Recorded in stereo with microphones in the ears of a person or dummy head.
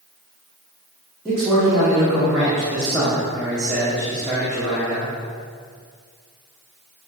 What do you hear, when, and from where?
1.2 s a man speaking: 5° right (ahead or behind), 0.9 m